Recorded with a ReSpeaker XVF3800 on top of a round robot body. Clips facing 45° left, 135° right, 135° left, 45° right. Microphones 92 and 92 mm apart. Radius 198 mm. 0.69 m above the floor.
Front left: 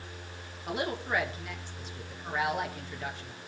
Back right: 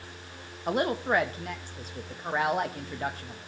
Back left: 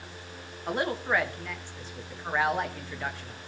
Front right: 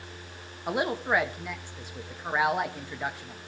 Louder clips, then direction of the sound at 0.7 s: Back right 6 dB, front right 1 dB; 115° right.